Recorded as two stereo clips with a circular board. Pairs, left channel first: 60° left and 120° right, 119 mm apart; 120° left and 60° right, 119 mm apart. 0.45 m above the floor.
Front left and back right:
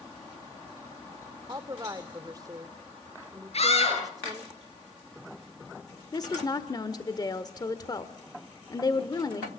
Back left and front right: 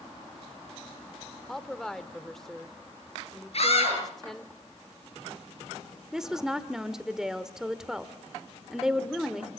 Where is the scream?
90° left, 9.5 m.